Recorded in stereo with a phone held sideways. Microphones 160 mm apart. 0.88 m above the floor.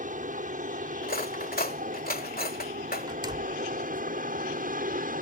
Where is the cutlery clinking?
65° left (ahead or behind).